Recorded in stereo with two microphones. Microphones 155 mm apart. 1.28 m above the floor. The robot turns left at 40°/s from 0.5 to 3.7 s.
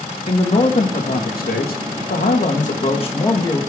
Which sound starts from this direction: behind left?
A man speaking, at 0.3 s.